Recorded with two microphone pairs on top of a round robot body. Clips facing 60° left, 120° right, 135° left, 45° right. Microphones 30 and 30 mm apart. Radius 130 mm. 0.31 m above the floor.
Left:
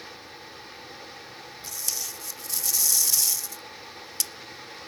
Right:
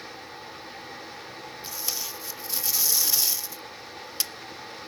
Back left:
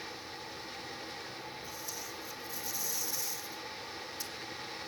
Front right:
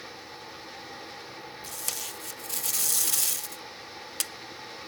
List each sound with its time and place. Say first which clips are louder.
1.6 s tape being pulled: even, front right 5 dB; 50° right, 0.6 m